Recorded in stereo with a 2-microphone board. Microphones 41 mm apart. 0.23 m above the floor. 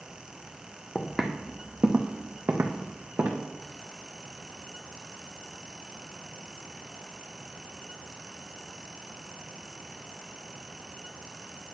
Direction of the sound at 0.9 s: 5° left (ahead or behind).